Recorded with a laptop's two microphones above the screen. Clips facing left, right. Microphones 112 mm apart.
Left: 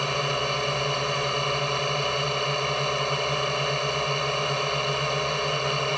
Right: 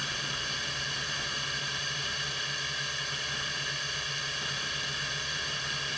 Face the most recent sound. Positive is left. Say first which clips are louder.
# left 13 dB
turn(degrees=60)  # may be behind; listen again after turning